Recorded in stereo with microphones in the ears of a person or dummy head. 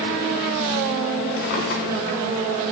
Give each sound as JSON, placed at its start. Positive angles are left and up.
{"t": 1.4, "sound": "a drawer", "side_deg": 65, "distance_m": 4.0}